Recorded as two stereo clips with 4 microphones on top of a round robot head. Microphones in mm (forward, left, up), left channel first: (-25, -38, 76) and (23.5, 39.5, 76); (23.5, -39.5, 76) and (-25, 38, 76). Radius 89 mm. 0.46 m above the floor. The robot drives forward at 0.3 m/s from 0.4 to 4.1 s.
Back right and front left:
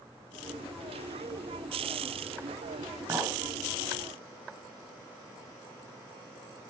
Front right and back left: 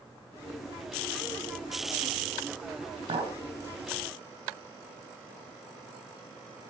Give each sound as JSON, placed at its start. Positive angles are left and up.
{"t": 3.1, "sound": "a clink", "azimuth_deg": 120, "distance_m": 3.5}